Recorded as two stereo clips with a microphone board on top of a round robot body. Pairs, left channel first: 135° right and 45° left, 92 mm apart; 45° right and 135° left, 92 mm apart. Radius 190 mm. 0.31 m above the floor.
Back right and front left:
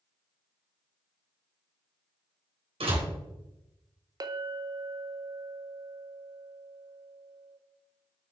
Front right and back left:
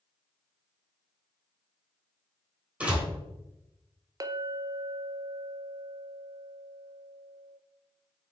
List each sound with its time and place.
2.8 s a door slam: 55° left, 3.5 m
4.2 s a clink: 90° left, 0.9 m